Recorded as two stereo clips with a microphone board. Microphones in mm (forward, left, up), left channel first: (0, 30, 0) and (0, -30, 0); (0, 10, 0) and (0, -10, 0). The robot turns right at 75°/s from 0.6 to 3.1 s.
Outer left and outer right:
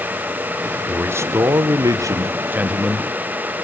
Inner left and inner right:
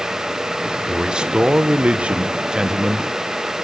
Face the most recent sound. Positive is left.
turn(degrees=10)